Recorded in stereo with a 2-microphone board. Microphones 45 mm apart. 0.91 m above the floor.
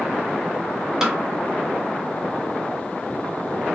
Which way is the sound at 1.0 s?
15° right (ahead or behind).